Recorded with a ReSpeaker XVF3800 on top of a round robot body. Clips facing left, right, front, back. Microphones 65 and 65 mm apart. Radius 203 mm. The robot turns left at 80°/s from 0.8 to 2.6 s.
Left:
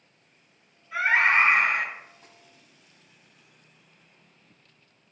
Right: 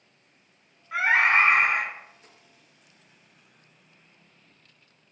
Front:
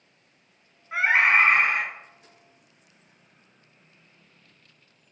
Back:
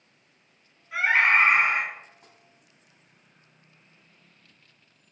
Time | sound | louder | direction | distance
0.9 | a scream | right 1 dB, front 1 dB | 50° right | 3.5 m
2.2 | tapping | left 2 dB, even | 140° left | 3 m